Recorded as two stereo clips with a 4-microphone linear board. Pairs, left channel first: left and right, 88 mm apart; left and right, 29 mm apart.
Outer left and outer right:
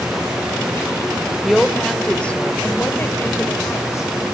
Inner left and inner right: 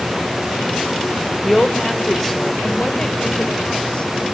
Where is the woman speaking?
Centre (ahead or behind), 1.8 m; by 4.1 s 40° left (ahead or behind), 2.5 m.